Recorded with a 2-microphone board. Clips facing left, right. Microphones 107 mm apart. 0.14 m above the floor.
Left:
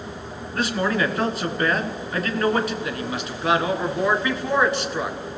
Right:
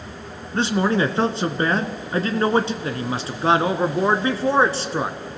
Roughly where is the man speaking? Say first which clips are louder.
Right 3 dB; right.